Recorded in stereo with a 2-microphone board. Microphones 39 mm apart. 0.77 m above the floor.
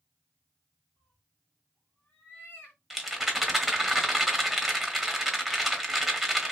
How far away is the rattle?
About 1.0 m.